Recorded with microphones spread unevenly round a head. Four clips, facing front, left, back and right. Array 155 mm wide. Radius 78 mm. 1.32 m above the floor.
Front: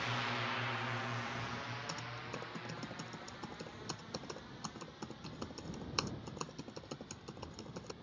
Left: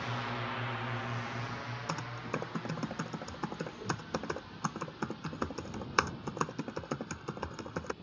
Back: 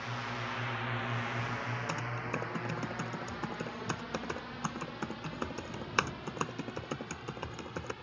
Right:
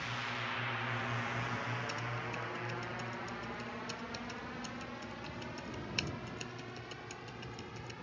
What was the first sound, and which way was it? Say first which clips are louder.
A drone: left 3 dB, even; 80° left.